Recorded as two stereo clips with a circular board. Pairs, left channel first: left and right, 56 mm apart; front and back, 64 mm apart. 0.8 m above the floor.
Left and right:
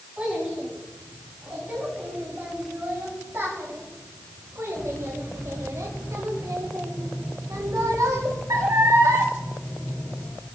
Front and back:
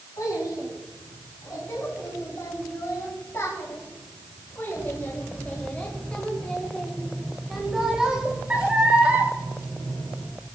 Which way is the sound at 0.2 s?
25° right.